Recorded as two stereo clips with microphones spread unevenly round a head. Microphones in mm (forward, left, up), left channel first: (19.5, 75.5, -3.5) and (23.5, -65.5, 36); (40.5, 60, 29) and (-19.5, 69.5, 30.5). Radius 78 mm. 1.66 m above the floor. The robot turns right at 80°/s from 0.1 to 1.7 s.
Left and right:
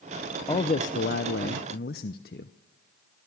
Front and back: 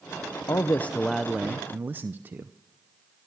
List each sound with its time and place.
0.5 s a man speaking: 25° left, 0.7 m; by 2.5 s 125° left, 0.7 m